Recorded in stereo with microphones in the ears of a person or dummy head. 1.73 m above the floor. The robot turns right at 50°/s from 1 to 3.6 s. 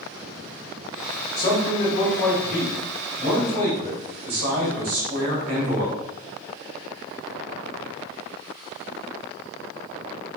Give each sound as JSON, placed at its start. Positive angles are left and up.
{"t": 1.4, "sound": "a man speaking", "azimuth_deg": 125, "distance_m": 1.7}